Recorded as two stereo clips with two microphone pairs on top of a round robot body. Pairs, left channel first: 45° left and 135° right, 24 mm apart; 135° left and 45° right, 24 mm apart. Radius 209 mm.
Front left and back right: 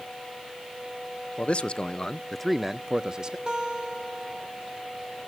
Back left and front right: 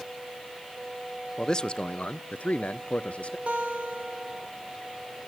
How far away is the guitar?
About 4 m.